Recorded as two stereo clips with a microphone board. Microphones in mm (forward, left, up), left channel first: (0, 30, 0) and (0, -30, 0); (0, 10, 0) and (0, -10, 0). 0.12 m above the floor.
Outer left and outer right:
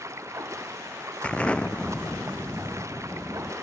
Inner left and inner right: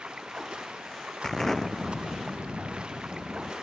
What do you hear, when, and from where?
0.0 s running water: 55° right (ahead or behind)
1.2 s an explosion: 20° left (ahead or behind)